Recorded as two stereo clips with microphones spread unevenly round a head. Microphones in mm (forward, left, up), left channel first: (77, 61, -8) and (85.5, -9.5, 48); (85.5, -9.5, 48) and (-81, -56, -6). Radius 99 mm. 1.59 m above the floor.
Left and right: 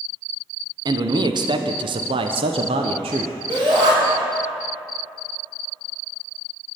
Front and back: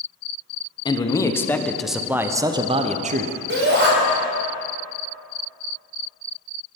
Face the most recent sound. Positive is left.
turn(degrees=-140)